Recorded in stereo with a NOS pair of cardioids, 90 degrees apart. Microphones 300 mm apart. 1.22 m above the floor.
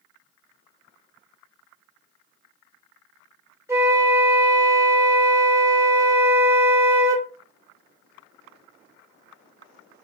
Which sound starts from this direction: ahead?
A flute, at 3.7 s.